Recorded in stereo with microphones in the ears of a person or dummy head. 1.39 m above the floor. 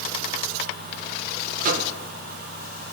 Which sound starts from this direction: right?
A microwave, at 1.6 s.